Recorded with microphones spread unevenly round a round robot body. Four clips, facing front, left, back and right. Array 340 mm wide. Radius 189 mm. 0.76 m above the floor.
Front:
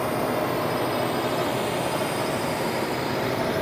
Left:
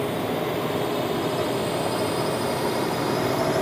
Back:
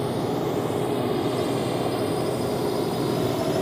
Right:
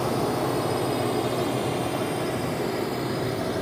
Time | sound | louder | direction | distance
0.0 | a drone | right 1 dB, front 1 dB | 140° right | ?